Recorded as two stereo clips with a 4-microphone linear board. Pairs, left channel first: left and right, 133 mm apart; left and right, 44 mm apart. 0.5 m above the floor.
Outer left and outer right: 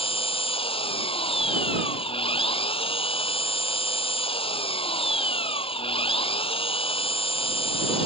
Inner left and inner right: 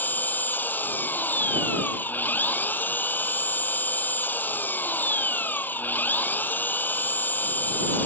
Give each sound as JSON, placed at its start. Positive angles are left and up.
{"t": 0.0, "sound": "an engine running", "side_deg": 45}